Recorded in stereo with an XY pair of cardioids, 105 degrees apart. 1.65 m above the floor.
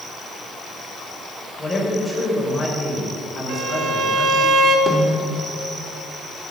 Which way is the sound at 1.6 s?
20° left.